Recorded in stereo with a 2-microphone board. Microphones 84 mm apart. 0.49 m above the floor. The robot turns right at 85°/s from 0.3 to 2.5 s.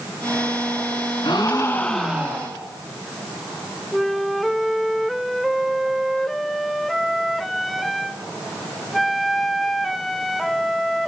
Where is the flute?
Centre (ahead or behind), 1.4 m.